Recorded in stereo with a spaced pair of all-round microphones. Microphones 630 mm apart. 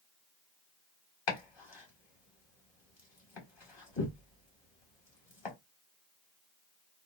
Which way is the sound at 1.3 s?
40° left (ahead or behind).